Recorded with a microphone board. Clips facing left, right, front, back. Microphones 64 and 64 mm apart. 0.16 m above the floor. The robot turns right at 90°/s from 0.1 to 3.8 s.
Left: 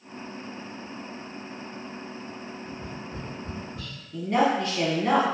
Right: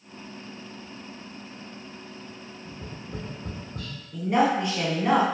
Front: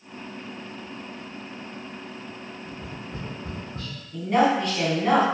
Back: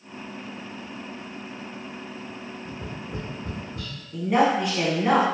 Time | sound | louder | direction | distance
2.6 | tapping | left 2 dB, back 2 dB | 160° right | 1.2 m
4.1 | a woman speaking | right 1 dB, even | 110° right | 1.1 m